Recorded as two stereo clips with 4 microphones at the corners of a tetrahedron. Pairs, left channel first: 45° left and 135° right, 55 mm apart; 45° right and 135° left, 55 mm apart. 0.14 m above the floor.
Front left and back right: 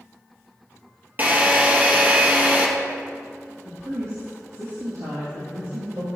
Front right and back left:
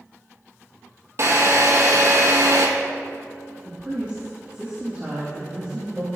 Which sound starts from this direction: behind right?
A woman speaking, at 3.6 s.